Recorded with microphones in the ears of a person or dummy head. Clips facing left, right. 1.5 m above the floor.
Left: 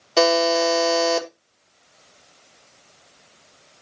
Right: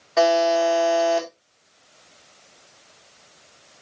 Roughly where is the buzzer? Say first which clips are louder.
Even; left.